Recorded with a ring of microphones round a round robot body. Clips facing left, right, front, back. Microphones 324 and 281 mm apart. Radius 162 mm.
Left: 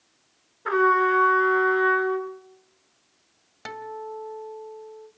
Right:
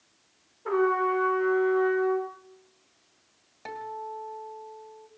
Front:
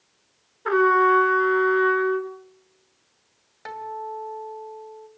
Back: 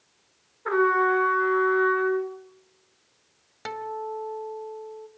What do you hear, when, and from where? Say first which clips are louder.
0.7 s a trumpet: left 2 dB, front 3 dB; 45° left, 2.5 m
3.6 s a guitar: left 4 dB, back 3 dB; 140° left, 2 m